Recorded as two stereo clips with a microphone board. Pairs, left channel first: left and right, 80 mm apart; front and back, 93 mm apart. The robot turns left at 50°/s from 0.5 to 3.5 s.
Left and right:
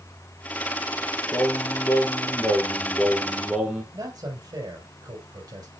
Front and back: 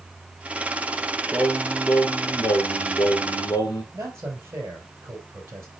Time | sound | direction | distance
1.3 | singing | 95° left | 2 m
3.9 | a man speaking | 120° right | 3.5 m